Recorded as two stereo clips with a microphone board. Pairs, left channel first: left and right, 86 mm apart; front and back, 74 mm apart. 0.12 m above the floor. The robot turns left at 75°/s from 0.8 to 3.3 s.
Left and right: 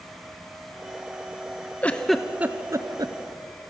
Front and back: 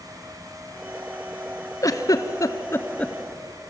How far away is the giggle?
About 1.0 m.